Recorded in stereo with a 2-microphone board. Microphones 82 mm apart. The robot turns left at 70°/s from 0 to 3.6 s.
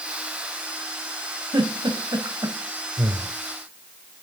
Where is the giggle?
65° right (ahead or behind), 3 m; by 2.6 s 35° right (ahead or behind), 3 m.